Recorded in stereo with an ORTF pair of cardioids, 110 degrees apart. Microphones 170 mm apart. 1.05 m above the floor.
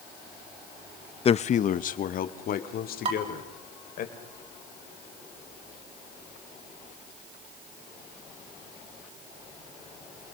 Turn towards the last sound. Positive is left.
turn(degrees=-40)